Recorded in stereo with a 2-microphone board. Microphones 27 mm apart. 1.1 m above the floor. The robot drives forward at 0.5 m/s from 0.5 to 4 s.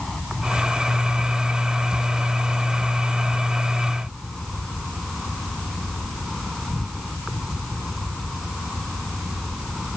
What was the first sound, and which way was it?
An insect, centre (ahead or behind).